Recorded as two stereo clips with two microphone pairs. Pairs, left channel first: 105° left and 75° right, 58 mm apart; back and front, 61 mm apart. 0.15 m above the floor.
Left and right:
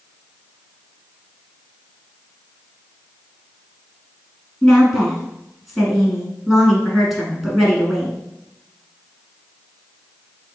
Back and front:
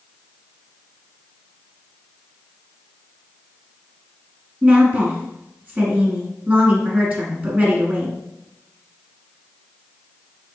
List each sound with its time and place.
4.6 s a woman speaking: 10° left, 1.3 m